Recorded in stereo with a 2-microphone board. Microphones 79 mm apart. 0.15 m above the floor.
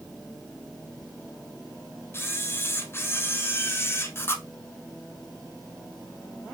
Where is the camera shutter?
30° left (ahead or behind), 0.8 m.